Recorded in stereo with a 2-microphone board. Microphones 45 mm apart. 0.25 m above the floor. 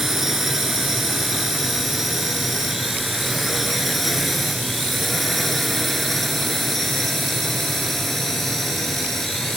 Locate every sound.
0.0 s a drone: 5° right (ahead or behind); by 9.6 s 5° left (ahead or behind)